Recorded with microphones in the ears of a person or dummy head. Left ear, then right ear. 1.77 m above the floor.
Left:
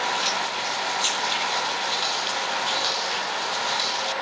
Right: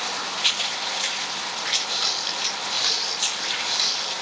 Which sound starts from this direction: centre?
A running tap, at 1.9 s.